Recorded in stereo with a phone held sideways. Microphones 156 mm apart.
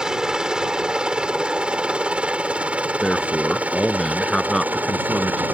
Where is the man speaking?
Centre (ahead or behind).